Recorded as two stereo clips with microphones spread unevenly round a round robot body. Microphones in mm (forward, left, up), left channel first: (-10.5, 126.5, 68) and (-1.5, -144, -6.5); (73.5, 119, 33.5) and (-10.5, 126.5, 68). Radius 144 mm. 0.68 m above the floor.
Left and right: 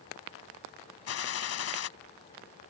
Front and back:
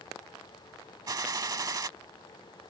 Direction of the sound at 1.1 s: 130° left.